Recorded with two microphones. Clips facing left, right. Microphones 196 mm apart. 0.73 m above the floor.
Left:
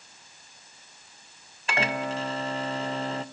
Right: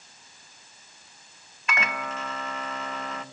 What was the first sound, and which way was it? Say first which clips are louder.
A microwave: left 4 dB; 30° left (ahead or behind).